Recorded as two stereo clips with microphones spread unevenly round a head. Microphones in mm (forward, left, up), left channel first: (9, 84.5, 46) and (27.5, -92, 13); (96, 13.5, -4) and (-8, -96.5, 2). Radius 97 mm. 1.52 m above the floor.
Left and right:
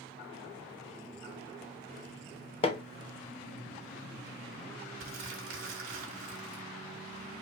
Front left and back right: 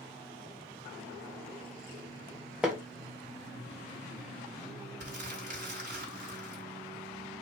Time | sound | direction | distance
2.6 | hammering | 145° left | 0.6 m
5.0 | crumpling | 105° right | 2.5 m